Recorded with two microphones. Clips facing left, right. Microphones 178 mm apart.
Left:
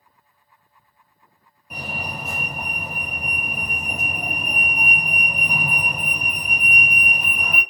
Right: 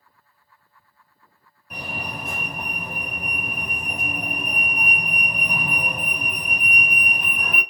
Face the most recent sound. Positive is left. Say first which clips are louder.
# left 1 dB
turn(degrees=10)  # may be behind; listen again after turning